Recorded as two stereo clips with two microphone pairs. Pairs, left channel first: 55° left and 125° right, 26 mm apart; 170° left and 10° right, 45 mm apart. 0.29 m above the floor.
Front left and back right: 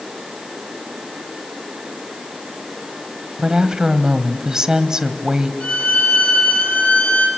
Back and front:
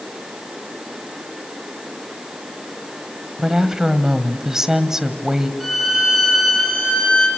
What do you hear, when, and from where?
3.4 s a woman speaking: 80° right, 1.6 m
5.6 s a violin: 85° left, 7 m